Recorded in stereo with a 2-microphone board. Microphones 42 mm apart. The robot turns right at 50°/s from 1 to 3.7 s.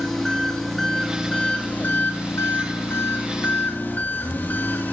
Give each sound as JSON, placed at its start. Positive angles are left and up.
{"t": 0.0, "sound": "an engine running", "azimuth_deg": 0, "distance_m": 7.5}